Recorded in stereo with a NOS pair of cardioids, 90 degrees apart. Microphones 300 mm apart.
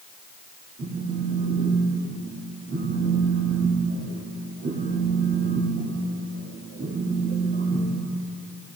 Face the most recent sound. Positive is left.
turn(degrees=-40)